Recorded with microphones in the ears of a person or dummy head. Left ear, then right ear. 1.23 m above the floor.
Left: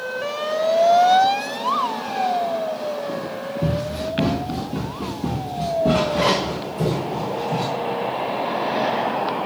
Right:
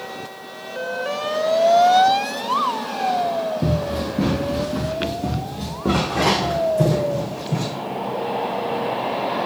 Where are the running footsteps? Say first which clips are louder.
Right 1 dB; 15° left (ahead or behind), 4 m; by 7.7 s 45° right (ahead or behind), 3.5 m.